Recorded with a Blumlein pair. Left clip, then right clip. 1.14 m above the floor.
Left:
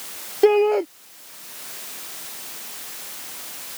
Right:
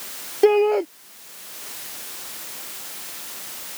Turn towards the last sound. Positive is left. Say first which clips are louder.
# even
turn(degrees=0)